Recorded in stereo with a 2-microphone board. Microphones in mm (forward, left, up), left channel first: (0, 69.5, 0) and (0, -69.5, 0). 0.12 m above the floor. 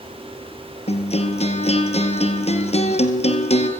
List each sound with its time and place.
0.9 s a guitar: 50° left (ahead or behind), 3 m